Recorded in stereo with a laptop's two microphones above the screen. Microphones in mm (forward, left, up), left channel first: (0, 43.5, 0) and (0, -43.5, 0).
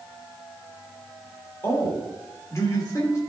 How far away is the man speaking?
About 2.5 m.